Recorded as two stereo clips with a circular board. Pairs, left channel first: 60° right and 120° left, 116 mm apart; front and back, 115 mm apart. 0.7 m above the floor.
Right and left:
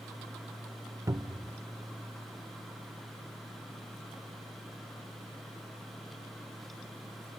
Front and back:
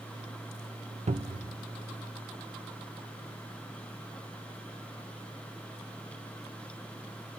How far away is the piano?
No piano in this recording.